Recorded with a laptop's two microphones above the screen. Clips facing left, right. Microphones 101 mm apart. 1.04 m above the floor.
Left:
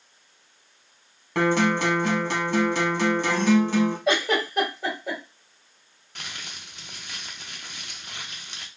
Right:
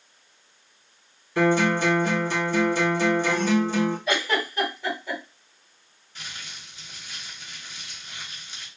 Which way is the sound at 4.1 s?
85° left.